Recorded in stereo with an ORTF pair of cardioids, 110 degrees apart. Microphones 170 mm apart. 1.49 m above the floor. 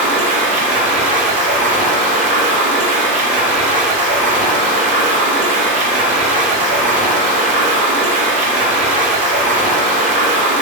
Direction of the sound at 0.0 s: 50° right.